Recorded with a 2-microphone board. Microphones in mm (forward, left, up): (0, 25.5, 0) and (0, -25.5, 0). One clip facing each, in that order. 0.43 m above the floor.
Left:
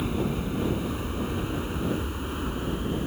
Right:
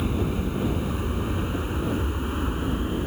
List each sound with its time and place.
0.0 s an aircraft: 5° right (ahead or behind); by 3.1 s 15° right (ahead or behind)